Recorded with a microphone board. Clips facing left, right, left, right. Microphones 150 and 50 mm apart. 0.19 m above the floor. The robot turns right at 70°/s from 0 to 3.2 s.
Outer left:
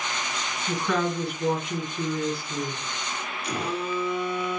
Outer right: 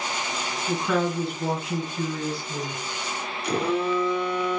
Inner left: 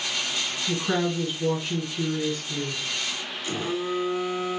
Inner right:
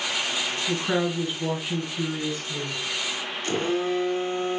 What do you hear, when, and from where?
0.7 s a woman speaking: 175° right, 1.4 m; by 2.8 s 25° right, 1.4 m
3.4 s a phone buzzing: 65° right (ahead or behind), 0.9 m